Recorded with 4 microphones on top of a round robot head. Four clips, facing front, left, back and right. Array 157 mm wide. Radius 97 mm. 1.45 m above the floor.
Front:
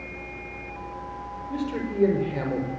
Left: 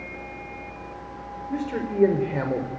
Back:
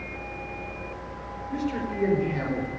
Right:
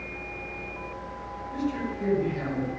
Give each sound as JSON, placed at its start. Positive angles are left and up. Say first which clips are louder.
{"t": 1.5, "sound": "a man speaking", "louder": "left 3 dB, even", "azimuth_deg": 70, "distance_m": 5.0}